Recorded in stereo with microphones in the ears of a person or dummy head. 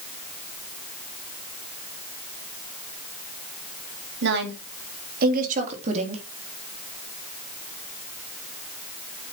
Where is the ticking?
I don't hear ticking.